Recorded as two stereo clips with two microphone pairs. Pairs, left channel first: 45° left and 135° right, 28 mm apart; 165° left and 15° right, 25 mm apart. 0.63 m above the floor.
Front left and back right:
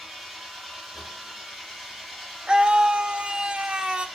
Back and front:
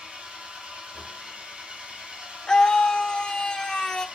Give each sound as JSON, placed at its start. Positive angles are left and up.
{"t": 0.0, "sound": "an engine running", "azimuth_deg": -55, "distance_m": 3.0}
{"t": 2.5, "sound": "a scream", "azimuth_deg": -150, "distance_m": 0.8}